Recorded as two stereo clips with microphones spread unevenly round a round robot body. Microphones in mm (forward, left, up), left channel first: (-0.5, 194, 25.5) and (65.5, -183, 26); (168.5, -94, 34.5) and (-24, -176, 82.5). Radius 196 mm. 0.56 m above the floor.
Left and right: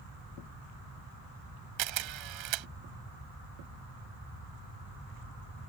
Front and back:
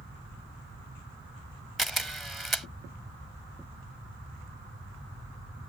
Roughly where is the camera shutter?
Ahead right.